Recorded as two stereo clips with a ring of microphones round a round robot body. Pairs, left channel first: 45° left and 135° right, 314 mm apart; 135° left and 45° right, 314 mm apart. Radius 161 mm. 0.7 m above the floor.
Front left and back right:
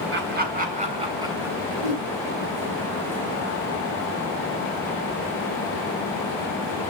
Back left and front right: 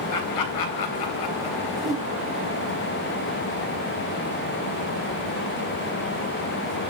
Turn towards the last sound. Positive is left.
turn(degrees=-135)